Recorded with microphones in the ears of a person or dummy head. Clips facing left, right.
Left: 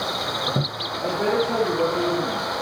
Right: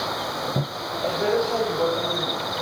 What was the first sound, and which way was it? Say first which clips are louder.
A man speaking: even; 50° left (ahead or behind).